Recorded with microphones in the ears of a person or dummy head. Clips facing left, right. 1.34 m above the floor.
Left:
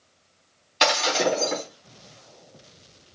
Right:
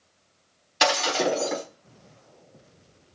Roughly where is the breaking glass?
Centre.